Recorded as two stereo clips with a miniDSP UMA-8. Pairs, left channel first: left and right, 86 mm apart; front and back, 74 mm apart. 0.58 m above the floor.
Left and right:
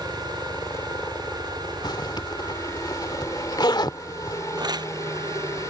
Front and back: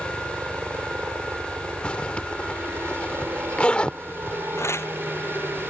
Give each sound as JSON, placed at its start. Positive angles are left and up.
{"t": 0.0, "sound": "a helicopter", "azimuth_deg": 130}
{"t": 1.8, "sound": "a zipper", "azimuth_deg": 70}
{"t": 4.6, "sound": "tearing paper", "azimuth_deg": -55}